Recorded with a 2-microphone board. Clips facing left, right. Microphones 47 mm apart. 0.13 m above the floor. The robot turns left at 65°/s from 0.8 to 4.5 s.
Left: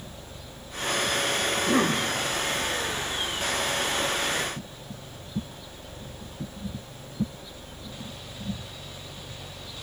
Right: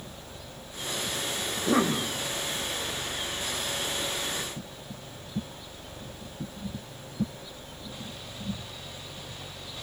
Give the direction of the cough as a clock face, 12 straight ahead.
3 o'clock.